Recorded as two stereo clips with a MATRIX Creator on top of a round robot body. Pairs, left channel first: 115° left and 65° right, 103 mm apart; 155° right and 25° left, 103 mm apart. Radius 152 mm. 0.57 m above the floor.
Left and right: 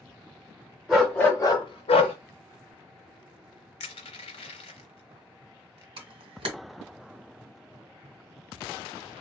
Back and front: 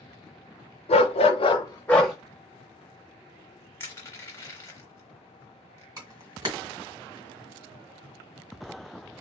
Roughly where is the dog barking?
Behind right.